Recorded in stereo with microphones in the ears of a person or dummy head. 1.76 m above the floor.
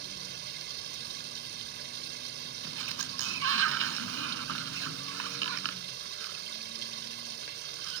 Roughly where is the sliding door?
Right.